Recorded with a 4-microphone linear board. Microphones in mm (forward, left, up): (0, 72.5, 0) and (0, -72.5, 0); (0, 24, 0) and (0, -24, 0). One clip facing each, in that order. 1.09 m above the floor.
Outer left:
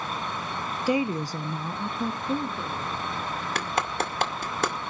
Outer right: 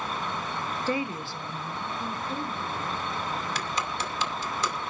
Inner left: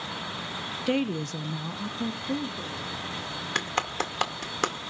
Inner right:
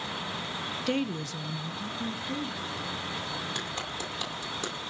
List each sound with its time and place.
0.9 s a woman speaking: 10° left (ahead or behind), 0.8 m; by 2.9 s 45° left (ahead or behind), 3 m
3.5 s a clap: 60° left (ahead or behind), 2.5 m